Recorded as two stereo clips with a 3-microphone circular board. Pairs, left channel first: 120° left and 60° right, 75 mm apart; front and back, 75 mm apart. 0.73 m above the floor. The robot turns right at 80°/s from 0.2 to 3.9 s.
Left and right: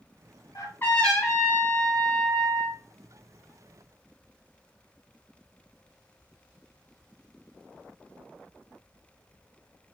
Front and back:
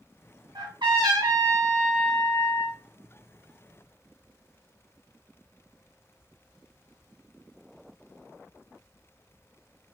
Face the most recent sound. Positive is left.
turn(degrees=65)